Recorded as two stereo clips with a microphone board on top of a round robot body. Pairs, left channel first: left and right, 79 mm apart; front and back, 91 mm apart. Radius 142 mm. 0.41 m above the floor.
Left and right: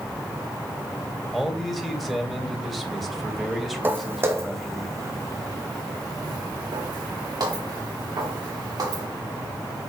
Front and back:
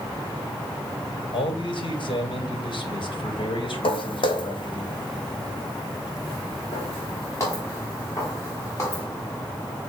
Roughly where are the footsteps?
Ahead right.